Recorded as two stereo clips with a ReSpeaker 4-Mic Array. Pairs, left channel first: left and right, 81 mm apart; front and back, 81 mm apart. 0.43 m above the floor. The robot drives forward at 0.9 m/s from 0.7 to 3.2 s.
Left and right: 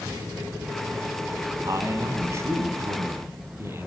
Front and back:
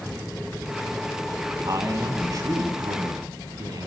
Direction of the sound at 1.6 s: 135° right.